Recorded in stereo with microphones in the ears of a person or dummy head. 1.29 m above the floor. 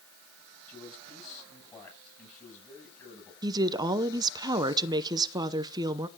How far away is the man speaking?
About 8.5 m.